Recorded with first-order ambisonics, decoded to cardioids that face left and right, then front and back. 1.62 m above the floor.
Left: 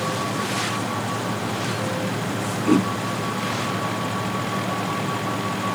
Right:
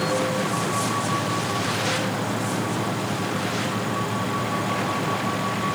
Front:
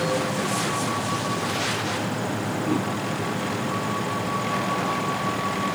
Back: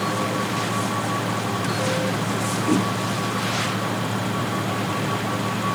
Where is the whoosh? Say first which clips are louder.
Left 6 dB, back 4 dB; 105° left.